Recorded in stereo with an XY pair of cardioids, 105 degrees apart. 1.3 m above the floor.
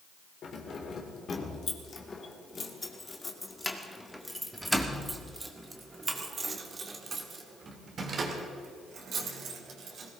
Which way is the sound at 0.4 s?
55° left.